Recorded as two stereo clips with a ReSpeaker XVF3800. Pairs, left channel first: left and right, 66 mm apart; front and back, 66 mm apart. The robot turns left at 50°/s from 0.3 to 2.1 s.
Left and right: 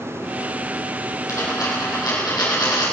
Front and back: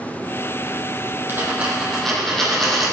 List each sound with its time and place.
1.3 s a dropped coin: 125° left, 4.5 m; by 2.9 s 85° left, 4.5 m